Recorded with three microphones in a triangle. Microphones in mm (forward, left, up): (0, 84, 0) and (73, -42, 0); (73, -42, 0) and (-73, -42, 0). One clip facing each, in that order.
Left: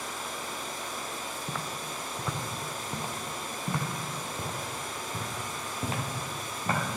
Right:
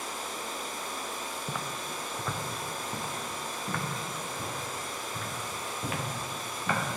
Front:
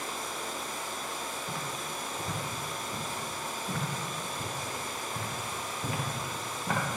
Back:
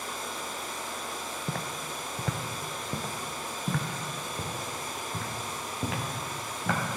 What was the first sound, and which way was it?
Footsteps, 140° right.